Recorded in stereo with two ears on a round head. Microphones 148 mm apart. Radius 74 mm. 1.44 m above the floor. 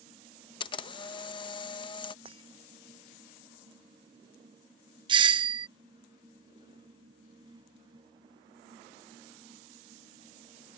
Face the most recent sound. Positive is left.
turn(degrees=-30)  # may be behind; listen again after turning